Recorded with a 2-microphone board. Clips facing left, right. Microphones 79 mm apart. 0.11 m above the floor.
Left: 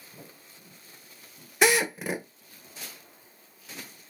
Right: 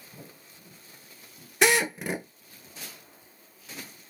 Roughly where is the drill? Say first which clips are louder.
Even; centre.